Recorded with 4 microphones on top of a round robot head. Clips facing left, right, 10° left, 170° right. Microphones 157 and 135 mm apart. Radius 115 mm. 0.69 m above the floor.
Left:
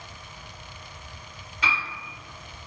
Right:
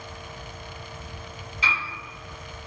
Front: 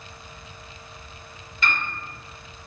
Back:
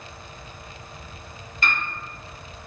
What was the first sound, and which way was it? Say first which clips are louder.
A piano: left 1 dB, even; 140° left.